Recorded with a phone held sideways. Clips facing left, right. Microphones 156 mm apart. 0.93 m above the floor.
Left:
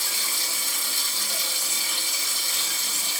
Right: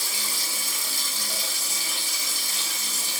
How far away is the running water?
About 1.8 m.